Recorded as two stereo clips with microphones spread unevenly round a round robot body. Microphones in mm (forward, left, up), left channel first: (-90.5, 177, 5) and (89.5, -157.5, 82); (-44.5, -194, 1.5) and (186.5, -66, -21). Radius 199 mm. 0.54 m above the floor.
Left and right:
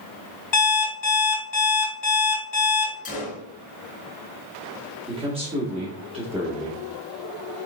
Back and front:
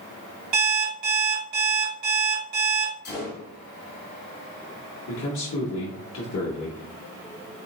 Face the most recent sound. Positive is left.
turn(degrees=-145)